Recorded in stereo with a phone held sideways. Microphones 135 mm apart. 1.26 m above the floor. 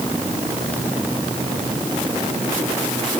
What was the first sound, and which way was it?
Only background noise.